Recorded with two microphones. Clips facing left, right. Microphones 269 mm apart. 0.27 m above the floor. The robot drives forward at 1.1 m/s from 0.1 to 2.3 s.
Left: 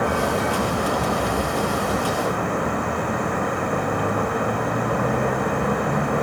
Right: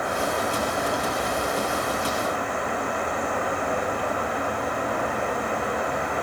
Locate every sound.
0.0 s a vehicle: 70° left (ahead or behind); by 6.2 s 60° left (ahead or behind)